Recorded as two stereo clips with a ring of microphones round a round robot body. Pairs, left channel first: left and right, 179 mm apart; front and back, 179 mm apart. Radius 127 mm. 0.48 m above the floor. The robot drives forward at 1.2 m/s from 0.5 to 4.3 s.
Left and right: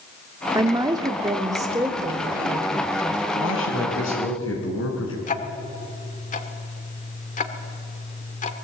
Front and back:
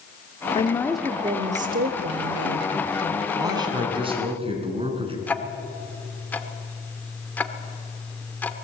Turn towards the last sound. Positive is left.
turn(degrees=75)